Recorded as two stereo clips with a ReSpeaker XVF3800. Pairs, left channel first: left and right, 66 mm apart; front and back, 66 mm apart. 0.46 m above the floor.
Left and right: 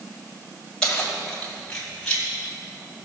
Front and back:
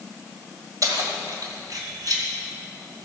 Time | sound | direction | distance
0.8 | keys jangling | 170° left | 1.8 m